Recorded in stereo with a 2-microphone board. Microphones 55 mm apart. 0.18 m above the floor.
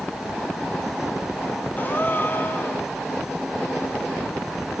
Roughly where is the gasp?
Left.